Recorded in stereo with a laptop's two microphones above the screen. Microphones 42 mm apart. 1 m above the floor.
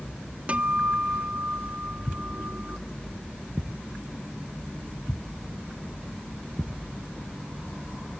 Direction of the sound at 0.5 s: 30° right (ahead or behind).